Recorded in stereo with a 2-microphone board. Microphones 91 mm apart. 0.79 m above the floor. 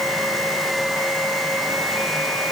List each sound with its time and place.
Only background noise.